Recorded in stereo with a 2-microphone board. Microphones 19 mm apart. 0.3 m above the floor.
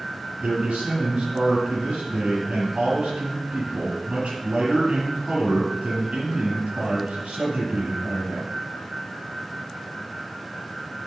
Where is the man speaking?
80° right, 5.5 m.